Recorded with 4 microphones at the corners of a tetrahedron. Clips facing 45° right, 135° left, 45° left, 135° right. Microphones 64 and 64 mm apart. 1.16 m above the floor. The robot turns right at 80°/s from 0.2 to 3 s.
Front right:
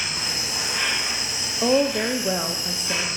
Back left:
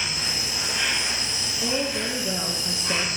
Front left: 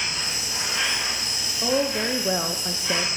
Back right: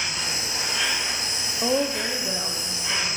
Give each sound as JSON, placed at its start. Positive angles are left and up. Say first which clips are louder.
{"t": 0.0, "sound": "an insect", "louder": "even, back right 1 dB", "azimuth_deg": -60, "distance_m": 5.5}
{"t": 1.6, "sound": "a woman speaking", "louder": "front right 8 dB, front left 1 dB", "azimuth_deg": -55, "distance_m": 0.5}